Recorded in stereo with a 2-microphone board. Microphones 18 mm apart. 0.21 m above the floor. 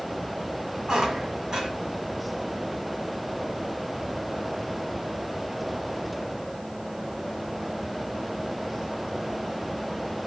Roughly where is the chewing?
No chewing in this recording.